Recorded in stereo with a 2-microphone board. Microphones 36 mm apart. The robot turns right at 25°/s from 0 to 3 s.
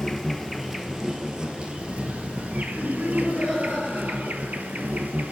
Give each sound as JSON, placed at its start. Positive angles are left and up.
{"t": 0.0, "sound": "an insect", "azimuth_deg": 170, "distance_m": 0.7}
{"t": 2.8, "sound": "laughter", "side_deg": -15, "distance_m": 3.0}